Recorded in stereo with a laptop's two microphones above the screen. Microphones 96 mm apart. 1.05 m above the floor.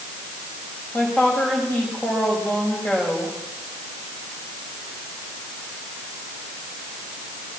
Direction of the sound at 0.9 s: 20° left (ahead or behind).